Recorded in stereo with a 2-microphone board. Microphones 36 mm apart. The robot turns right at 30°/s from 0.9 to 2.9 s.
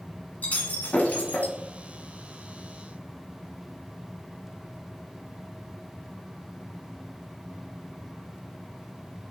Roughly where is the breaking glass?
Left.